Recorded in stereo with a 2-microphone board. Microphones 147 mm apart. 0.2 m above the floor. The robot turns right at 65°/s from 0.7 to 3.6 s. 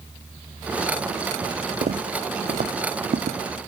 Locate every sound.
1.8 s footsteps: 70° right (ahead or behind), 0.6 m; by 3.4 s 80° right, 1.0 m